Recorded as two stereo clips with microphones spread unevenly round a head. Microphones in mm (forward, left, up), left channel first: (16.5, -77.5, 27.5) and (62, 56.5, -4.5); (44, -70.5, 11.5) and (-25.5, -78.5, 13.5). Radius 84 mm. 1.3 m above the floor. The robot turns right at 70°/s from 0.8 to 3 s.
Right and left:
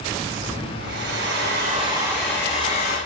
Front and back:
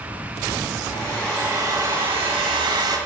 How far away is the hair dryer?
About 6 m.